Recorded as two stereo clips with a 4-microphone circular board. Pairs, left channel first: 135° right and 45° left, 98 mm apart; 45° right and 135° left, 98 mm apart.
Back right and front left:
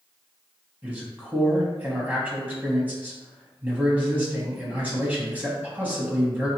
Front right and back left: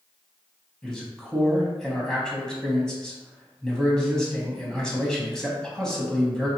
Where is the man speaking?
25° left, 1.0 m.